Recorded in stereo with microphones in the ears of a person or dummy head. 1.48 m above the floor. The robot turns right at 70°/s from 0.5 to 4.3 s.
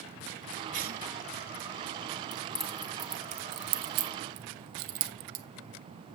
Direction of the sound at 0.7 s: 35° right (ahead or behind).